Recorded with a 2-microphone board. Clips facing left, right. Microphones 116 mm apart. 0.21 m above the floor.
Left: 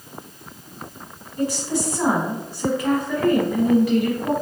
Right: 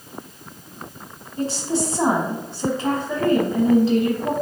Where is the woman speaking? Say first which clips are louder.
Even; 30° right (ahead or behind), 1.1 m.